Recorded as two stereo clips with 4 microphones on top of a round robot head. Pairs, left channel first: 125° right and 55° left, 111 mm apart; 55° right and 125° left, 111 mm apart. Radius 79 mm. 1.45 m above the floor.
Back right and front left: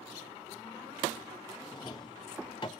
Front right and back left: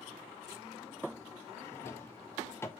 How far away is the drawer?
About 0.5 m.